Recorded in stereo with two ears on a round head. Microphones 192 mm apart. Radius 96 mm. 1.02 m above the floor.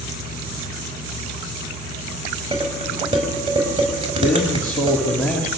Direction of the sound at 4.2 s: 5° left (ahead or behind).